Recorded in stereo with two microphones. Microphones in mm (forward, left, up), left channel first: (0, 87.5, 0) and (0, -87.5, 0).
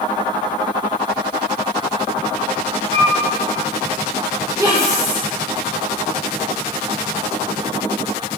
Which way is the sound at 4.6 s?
20° right (ahead or behind).